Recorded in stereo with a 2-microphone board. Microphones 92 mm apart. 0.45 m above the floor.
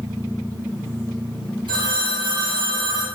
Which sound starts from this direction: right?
A phone ringing, at 1.7 s.